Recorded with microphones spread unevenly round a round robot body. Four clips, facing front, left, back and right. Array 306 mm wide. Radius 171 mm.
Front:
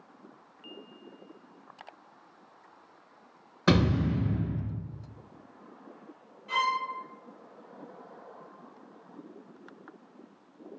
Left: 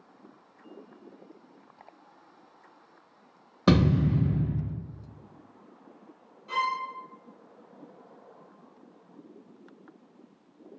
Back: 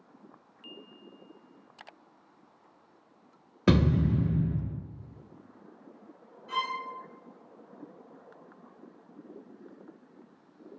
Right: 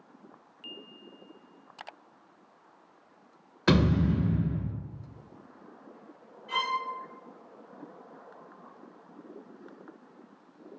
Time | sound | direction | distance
3.7 | a thud | 135° left | 1.0 m
6.5 | a violin | 95° left | 1.3 m